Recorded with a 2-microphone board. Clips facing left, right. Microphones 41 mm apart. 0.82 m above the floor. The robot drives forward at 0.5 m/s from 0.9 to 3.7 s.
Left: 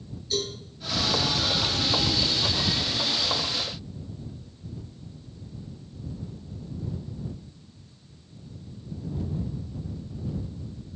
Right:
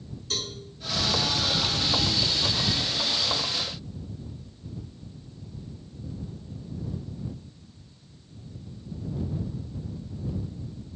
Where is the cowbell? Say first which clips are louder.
Left 4 dB; 70° right (ahead or behind), 5 m.